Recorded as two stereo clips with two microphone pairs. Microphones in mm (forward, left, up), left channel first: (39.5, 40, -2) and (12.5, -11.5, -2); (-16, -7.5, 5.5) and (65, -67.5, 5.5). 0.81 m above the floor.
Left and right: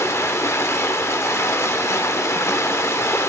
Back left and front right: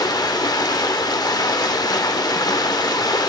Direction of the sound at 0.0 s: 95° left.